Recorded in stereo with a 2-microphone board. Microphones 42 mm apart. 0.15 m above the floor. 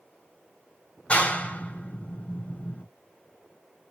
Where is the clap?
25° left (ahead or behind), 1.5 m.